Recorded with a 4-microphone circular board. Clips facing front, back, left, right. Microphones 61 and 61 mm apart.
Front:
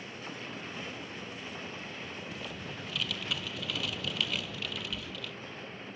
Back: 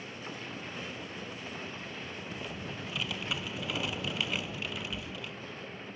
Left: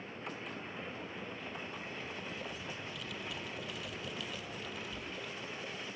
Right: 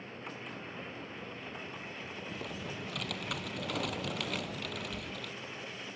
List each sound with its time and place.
2.3 s typing on a keyboard: 110° right